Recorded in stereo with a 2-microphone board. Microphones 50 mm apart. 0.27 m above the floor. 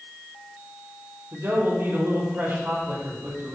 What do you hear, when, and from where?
1.3 s a man speaking: 50° right (ahead or behind), 5.5 m